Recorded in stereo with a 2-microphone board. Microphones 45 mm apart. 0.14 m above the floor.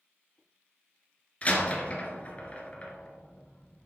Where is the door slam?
30° left (ahead or behind), 1.6 m.